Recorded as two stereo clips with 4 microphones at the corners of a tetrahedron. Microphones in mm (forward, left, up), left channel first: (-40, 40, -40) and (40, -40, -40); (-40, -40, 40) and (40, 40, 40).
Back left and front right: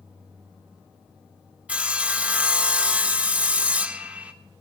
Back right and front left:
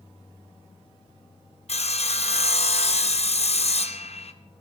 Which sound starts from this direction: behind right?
Sawing, at 1.7 s.